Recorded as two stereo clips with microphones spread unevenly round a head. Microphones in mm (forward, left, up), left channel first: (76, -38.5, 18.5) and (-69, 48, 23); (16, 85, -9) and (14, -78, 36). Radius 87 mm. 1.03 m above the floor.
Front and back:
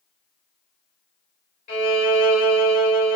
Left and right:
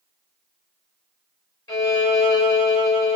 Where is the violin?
15° left, 1.9 m.